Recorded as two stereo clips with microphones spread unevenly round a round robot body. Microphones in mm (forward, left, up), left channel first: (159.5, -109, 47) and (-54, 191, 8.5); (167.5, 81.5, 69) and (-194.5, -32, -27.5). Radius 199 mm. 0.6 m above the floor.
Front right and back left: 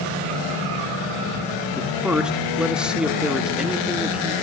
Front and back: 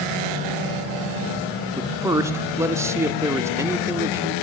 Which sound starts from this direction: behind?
A man speaking, at 1.7 s.